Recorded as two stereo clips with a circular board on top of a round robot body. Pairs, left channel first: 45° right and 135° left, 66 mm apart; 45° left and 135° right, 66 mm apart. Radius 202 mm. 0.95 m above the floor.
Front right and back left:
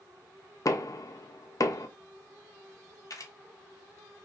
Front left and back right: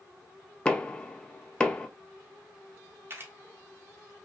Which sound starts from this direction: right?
A camera shutter, at 3.1 s.